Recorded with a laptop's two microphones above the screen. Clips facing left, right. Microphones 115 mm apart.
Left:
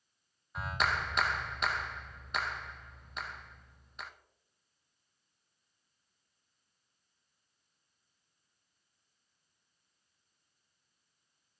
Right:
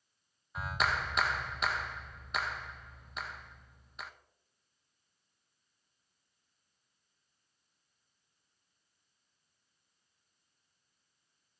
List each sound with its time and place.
0.6 s a clap: centre (ahead or behind), 0.5 m